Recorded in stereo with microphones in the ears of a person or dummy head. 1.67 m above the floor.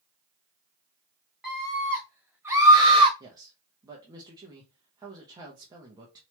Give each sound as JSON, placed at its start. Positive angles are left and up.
{"t": 1.4, "sound": "a scream", "side_deg": 0, "distance_m": 2.5}
{"t": 3.2, "sound": "a man speaking", "side_deg": -20, "distance_m": 0.9}